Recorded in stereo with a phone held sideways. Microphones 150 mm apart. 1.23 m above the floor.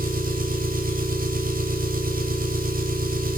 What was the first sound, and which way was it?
An engine running, 70° right (ahead or behind).